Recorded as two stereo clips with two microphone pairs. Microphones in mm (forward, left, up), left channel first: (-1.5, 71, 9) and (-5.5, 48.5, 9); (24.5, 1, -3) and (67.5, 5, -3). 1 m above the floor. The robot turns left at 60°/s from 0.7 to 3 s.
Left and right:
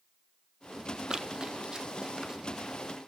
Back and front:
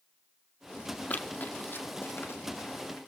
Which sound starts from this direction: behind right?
Running footsteps, at 1.1 s.